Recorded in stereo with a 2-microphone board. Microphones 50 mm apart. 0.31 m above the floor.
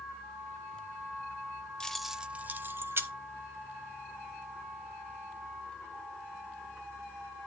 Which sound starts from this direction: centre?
Keys jangling, at 1.8 s.